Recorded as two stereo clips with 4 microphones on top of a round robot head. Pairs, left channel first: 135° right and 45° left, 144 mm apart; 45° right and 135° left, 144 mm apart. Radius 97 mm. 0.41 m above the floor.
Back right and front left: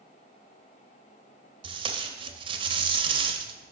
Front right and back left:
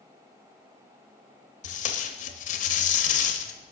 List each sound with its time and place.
1.6 s tape being pulled: 10° right, 0.7 m